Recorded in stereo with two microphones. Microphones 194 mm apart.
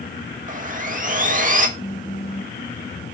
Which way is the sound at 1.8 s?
85° left.